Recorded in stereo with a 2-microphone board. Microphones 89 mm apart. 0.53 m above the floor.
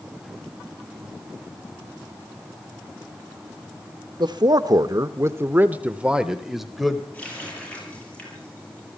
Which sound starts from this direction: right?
A man speaking, at 4.2 s.